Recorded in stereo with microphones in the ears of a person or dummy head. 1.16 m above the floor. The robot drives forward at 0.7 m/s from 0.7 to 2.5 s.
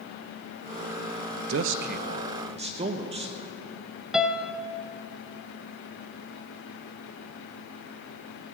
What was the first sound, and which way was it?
A man speaking, 70° right (ahead or behind).